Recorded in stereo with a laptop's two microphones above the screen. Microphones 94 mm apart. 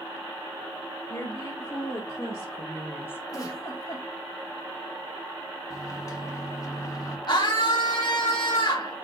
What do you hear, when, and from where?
1.1 s a woman speaking: 30° left (ahead or behind), 2.5 m; by 3.2 s 20° left (ahead or behind), 0.5 m
3.3 s a giggle: 40° left (ahead or behind), 2.5 m
5.7 s a microwave: 40° left (ahead or behind), 1.5 m
7.3 s a scream: 50° left (ahead or behind), 1.2 m